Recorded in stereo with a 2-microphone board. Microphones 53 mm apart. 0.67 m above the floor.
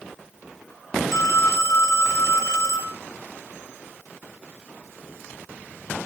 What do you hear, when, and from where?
1.1 s a phone ringing: 75° left (ahead or behind), 2.0 m